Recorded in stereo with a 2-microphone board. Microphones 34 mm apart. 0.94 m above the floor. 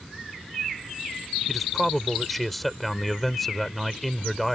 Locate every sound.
1.5 s a man speaking: 5° left (ahead or behind)